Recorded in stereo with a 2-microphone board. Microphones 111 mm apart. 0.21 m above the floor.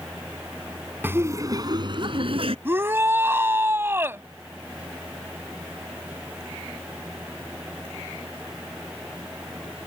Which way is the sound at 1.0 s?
20° right (ahead or behind).